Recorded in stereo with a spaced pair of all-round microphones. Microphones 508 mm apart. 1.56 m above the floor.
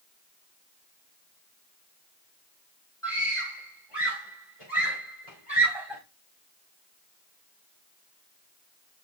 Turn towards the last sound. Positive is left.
turn(degrees=75)  # may be behind; listen again after turning